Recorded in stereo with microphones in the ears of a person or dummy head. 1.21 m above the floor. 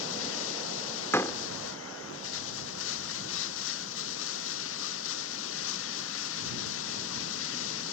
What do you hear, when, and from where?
0.0 s running water: 80° left
1.1 s a door slam: 15° left (ahead or behind)